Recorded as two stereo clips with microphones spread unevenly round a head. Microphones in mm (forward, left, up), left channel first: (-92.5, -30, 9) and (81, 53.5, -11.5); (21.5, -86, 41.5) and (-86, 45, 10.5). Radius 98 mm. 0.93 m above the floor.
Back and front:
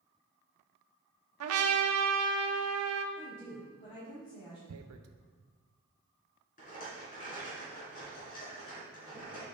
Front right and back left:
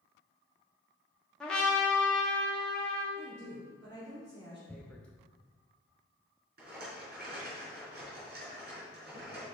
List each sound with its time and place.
1.4 s a trumpet: 35° left, 0.8 m
3.1 s a woman speaking: 150° left, 3 m
4.7 s tearing paper: 35° left, 0.6 m
6.6 s a rattle: 160° left, 3.5 m